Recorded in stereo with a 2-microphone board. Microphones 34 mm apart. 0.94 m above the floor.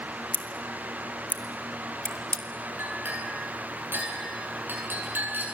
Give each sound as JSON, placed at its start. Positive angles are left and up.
{"t": 0.3, "sound": "scissors", "side_deg": 65, "distance_m": 1.4}
{"t": 2.8, "sound": "a clink", "side_deg": -80, "distance_m": 9.5}